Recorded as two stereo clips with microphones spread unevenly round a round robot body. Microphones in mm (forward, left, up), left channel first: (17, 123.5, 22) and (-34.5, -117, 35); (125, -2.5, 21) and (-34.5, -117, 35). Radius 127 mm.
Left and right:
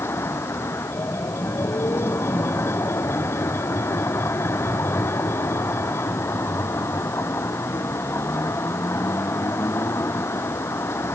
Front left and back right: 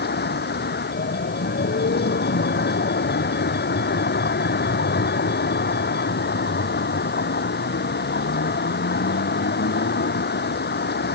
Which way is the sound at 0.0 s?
5° right.